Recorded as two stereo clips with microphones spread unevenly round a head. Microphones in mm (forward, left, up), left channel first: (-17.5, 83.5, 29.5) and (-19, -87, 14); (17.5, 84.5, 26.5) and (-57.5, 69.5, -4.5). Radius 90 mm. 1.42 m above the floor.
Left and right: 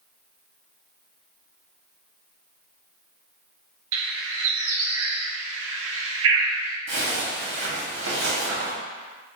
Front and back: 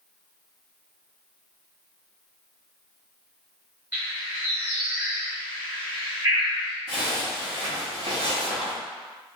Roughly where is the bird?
Right.